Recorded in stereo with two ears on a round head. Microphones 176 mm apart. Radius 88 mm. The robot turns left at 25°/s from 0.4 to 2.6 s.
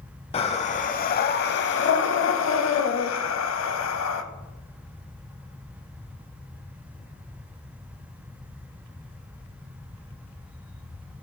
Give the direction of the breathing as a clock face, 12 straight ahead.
7 o'clock.